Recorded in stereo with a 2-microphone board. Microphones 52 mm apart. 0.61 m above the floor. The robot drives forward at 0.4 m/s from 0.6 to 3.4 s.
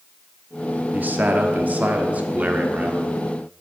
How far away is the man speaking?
About 1.1 m.